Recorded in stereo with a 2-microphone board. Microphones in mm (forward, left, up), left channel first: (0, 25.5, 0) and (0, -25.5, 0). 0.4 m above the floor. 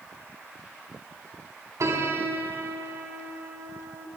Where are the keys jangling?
No keys jangling in this recording.